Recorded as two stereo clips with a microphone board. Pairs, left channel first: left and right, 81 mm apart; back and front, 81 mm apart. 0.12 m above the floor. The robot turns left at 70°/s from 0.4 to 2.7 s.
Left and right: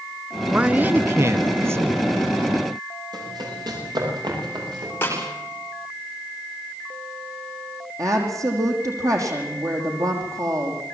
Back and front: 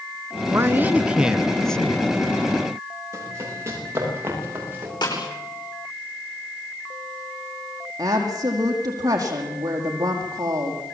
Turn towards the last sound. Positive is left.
turn(degrees=-45)